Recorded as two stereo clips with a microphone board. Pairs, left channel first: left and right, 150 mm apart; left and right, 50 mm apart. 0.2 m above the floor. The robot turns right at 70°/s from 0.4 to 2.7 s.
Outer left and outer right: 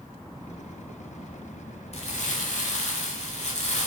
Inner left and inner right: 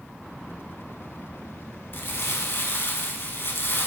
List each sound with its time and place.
1.9 s crumpling: 60° left, 0.5 m; by 3.9 s 110° left, 0.5 m